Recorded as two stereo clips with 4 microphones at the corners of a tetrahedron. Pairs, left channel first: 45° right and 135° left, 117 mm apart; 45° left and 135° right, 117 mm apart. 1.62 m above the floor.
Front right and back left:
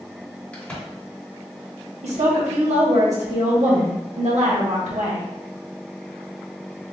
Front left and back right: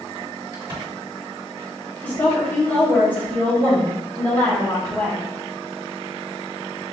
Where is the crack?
115° right, 1.6 m.